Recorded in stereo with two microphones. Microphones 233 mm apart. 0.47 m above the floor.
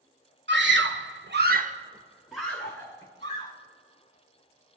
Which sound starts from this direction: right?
A scream, at 0.5 s.